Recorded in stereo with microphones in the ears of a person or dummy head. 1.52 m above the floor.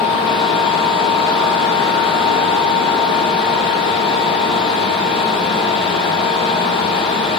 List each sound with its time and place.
0.0 s a fan: 25° left (ahead or behind), 2 m